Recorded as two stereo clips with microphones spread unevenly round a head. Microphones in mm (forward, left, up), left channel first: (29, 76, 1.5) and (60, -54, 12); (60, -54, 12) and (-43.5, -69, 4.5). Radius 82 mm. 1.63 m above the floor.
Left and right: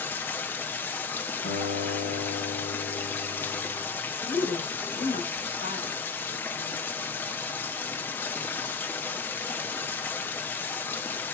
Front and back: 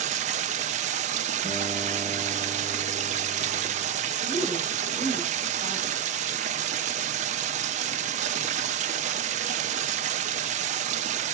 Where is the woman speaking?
145° left, 7.5 m.